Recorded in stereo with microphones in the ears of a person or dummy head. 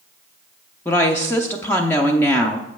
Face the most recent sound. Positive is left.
turn(degrees=15)  # may be behind; listen again after turning